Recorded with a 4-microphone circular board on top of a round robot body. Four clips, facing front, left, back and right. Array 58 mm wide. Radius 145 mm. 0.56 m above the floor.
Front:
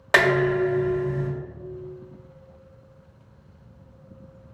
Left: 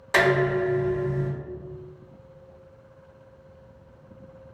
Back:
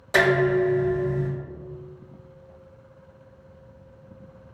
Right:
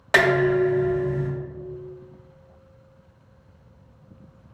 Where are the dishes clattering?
35° right, 1.9 m.